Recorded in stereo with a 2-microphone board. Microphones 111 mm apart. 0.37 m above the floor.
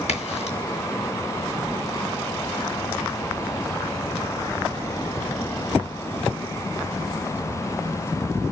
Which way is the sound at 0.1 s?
75° left (ahead or behind).